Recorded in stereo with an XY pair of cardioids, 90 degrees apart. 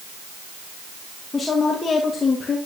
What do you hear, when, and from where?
1.3 s a woman speaking: 35° left, 2.5 m; by 2.6 s 45° left, 1.9 m